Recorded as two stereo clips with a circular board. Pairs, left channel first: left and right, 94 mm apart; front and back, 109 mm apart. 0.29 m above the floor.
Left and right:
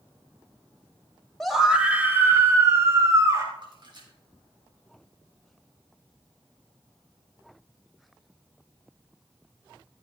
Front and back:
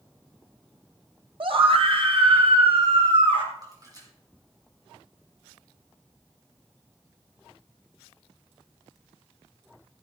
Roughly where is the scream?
Behind.